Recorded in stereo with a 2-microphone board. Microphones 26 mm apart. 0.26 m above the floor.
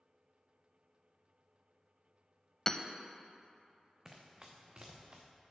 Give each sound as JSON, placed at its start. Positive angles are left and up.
{"t": 2.7, "sound": "hammering", "side_deg": 20, "distance_m": 0.5}
{"t": 4.0, "sound": "running footsteps", "side_deg": -25, "distance_m": 1.4}